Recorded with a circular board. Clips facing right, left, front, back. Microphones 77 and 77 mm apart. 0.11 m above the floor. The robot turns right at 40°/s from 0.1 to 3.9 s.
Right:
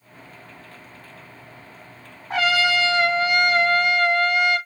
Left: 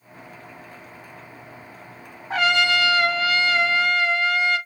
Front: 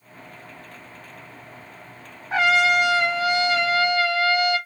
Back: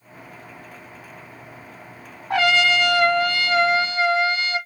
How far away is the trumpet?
About 1.1 m.